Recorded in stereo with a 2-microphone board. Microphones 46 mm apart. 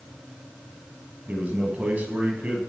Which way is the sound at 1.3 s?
35° right (ahead or behind).